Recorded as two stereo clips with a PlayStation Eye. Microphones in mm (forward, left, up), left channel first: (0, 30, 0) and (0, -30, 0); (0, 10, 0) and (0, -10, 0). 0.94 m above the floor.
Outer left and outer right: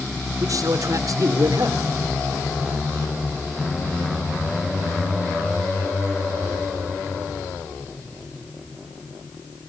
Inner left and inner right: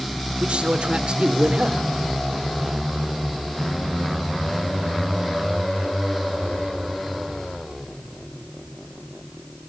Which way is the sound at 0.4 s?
65° right (ahead or behind).